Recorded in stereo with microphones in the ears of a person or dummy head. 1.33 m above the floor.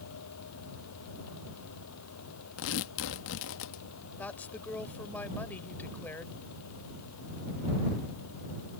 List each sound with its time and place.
0.0 s a fan: 80° left
2.6 s tearing paper: 75° left (ahead or behind)
4.2 s a woman speaking: 10° left (ahead or behind)